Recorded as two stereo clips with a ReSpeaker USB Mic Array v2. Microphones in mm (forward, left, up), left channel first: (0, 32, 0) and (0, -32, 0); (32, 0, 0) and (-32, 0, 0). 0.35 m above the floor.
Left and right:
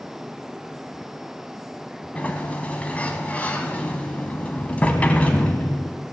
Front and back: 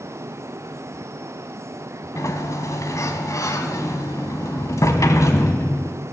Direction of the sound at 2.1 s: 25° left.